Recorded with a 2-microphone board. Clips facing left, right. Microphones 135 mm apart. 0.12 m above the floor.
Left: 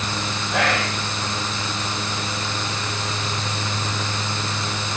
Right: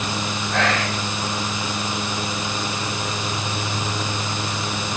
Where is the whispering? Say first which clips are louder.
Even; 15° left (ahead or behind), 5 m.